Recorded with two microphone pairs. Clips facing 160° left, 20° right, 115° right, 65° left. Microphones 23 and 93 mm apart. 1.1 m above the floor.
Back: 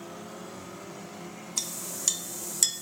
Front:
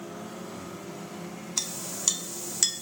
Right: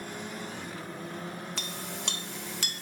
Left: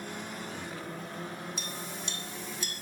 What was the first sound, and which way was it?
A clink, 100° right.